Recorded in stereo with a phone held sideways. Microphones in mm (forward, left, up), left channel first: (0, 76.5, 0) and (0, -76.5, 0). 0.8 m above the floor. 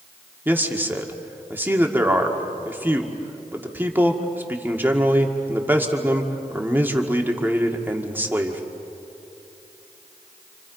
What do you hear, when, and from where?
0.5 s a man speaking: 15° right (ahead or behind), 1.9 m